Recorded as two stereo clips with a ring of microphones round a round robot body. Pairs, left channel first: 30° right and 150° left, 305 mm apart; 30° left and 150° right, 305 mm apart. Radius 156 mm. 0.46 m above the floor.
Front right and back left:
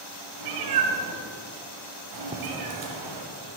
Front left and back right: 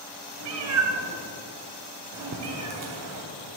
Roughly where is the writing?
Behind right.